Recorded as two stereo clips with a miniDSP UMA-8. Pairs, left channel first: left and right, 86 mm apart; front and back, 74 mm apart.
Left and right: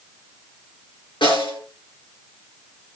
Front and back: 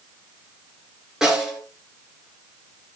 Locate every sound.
1.2 s a snare drum: 100° left, 5 m